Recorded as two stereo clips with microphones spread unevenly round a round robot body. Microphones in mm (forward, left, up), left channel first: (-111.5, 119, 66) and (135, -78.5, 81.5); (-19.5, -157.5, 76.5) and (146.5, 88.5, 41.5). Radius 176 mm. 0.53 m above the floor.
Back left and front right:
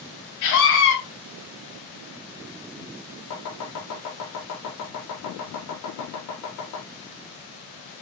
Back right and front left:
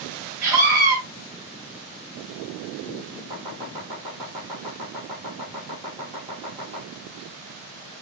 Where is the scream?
135° left, 4.5 m.